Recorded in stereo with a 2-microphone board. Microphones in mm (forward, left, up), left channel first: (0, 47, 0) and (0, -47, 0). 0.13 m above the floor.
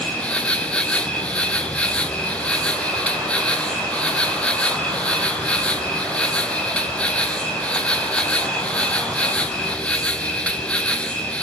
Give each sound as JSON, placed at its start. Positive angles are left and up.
{"t": 0.0, "sound": "an insect", "side_deg": 10, "distance_m": 0.8}